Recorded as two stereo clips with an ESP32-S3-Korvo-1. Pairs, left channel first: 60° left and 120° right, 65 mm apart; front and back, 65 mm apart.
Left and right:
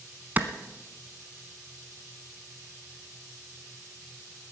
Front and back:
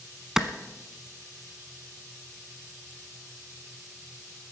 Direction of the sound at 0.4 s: 105° right.